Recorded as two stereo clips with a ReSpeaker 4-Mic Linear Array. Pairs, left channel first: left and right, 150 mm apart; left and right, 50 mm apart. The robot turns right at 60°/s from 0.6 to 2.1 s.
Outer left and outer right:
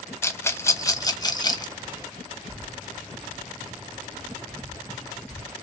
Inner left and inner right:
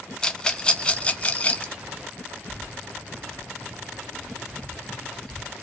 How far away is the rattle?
About 1.0 m.